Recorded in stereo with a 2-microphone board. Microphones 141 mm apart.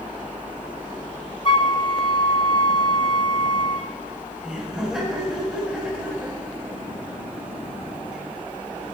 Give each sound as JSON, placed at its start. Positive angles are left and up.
{"t": 1.4, "sound": "a flute", "side_deg": 35, "distance_m": 0.5}
{"t": 4.4, "sound": "laughter", "side_deg": 0, "distance_m": 5.0}